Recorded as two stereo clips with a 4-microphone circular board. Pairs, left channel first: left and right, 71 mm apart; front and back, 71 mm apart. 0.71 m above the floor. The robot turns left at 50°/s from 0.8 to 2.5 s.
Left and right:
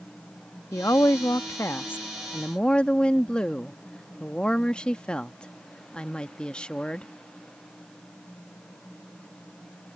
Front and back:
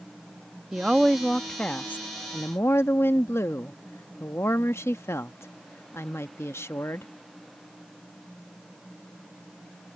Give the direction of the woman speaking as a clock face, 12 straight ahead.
8 o'clock.